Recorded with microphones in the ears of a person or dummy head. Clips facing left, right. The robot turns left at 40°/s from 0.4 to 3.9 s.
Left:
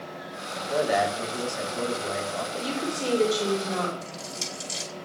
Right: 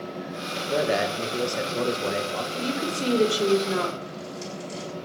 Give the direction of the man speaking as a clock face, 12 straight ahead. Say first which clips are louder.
Even; 1 o'clock.